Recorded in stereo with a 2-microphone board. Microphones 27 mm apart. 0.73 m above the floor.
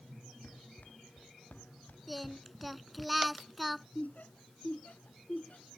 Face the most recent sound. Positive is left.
turn(degrees=55)  # may be behind; listen again after turning